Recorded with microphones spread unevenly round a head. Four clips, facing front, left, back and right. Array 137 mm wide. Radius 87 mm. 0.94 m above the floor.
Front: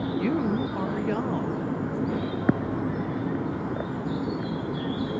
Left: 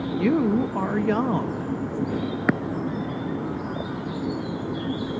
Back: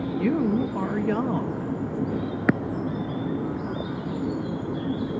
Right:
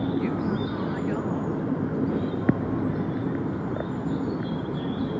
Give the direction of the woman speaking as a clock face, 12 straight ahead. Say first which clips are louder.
Left 6 dB, back 4 dB; 9 o'clock.